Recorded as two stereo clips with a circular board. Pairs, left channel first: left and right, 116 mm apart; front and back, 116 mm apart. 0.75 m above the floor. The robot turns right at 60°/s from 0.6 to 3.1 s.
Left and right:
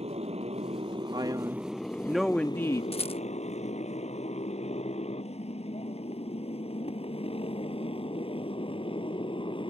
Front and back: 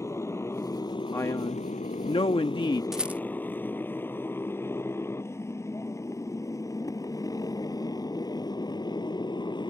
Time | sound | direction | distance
0.0 | a motorcycle | 65° right | ?
1.1 | a man speaking | 65° right | ?
2.9 | a rattle | 95° left | ?